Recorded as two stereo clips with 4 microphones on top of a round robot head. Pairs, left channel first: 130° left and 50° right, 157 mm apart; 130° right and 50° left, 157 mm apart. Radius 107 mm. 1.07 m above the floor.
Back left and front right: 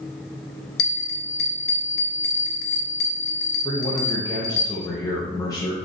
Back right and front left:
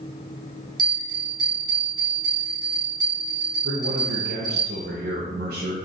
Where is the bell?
115° left, 0.6 m.